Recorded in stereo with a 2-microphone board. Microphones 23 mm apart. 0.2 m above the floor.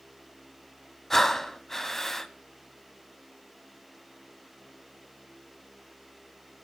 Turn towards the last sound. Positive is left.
turn(degrees=20)  # may be behind; listen again after turning